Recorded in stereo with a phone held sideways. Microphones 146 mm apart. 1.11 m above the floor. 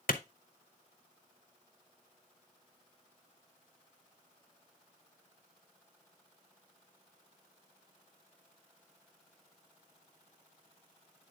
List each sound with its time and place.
0.1 s a clap: 75° left (ahead or behind), 0.9 m